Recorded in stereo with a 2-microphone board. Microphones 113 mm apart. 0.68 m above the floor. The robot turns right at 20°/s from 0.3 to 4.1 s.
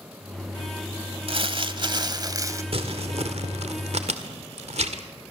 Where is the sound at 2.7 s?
55° right (ahead or behind), 1.8 m; by 5.0 s 70° right (ahead or behind), 1.8 m.